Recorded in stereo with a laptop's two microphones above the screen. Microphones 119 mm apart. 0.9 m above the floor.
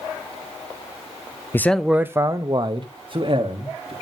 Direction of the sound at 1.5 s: 20° left (ahead or behind).